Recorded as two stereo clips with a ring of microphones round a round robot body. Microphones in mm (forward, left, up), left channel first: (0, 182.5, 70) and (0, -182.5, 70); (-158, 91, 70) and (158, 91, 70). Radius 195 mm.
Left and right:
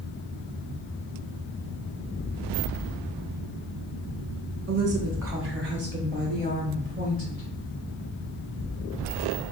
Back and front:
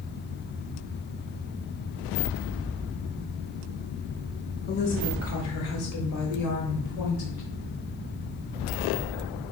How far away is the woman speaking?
About 0.9 m.